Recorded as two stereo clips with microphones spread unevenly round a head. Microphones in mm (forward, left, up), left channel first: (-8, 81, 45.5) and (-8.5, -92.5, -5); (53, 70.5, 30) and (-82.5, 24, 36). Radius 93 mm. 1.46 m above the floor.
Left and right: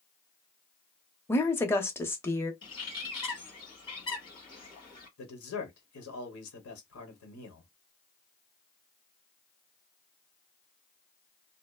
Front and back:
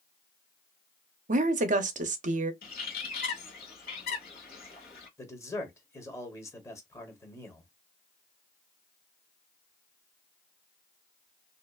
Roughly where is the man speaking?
Left.